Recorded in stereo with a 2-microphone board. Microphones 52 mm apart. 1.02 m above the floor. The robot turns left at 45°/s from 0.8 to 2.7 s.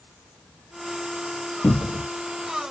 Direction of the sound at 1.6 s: 75° left (ahead or behind).